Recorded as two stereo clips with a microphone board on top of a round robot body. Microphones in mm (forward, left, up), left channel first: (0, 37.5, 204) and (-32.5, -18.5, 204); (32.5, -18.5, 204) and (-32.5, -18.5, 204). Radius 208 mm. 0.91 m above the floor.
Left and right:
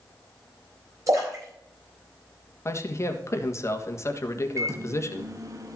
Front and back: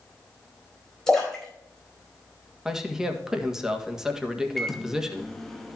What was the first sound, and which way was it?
A splash, 85° right.